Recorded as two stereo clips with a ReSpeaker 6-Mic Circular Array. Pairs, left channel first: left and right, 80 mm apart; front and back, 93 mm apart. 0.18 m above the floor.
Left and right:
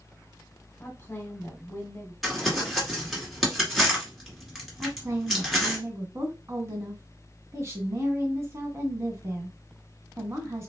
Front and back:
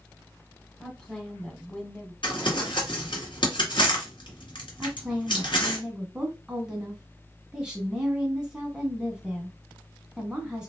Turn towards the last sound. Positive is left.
turn(degrees=-105)